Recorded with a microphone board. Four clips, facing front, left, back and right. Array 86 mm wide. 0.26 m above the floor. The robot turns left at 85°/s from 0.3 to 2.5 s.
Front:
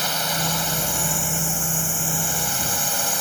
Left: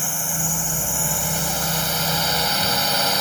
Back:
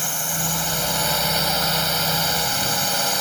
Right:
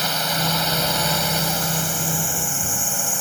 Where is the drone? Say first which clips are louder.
Right 6 dB, front 3 dB; 60° right; by 3.2 s 110° left.